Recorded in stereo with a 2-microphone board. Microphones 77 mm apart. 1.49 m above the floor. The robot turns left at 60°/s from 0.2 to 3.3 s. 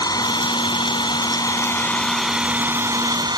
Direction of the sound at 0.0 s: 125° left.